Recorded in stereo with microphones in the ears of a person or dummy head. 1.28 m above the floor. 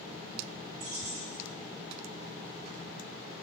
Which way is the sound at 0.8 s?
45° right (ahead or behind).